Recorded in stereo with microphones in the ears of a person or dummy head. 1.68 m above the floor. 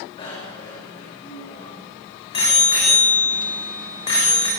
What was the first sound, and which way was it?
A bicycle bell, 30° left (ahead or behind).